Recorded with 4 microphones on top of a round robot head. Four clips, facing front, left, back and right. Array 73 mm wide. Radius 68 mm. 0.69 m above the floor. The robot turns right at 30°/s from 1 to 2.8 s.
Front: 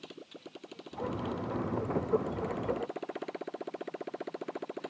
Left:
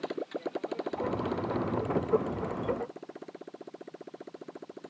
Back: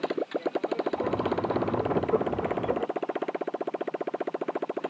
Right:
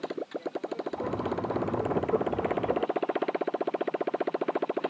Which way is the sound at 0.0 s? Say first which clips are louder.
Right 1 dB, back 19 dB; 175° right.